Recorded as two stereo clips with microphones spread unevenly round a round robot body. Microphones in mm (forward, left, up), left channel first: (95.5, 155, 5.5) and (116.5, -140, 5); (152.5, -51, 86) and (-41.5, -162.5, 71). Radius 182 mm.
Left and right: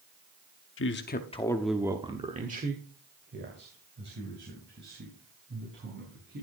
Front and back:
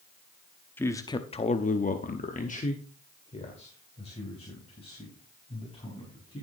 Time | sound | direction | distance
0.8 | a man speaking | 110° left | 0.9 m